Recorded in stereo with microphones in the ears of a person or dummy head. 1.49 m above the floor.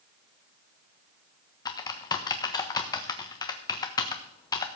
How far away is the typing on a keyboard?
About 1.0 m.